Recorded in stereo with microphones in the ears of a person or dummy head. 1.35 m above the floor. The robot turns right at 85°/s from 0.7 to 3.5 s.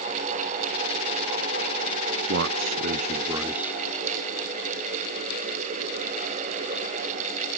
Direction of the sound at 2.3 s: 110° right.